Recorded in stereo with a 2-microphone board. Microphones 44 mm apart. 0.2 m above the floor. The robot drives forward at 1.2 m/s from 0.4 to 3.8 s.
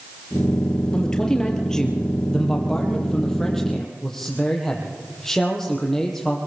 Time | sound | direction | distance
0.9 | a man speaking | 15° left (ahead or behind) | 4 m